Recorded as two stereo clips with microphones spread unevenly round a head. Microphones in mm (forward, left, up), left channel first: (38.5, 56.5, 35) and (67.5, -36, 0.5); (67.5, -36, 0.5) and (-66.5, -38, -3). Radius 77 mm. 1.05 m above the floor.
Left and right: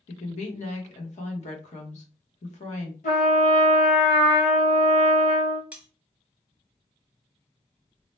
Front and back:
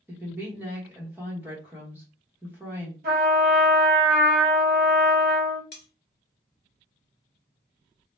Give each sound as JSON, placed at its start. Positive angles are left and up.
{"t": 0.1, "sound": "a woman speaking", "azimuth_deg": 105, "distance_m": 1.0}
{"t": 3.0, "sound": "a trumpet", "azimuth_deg": 140, "distance_m": 1.0}
{"t": 5.7, "sound": "cutlery clinking", "azimuth_deg": 5, "distance_m": 1.1}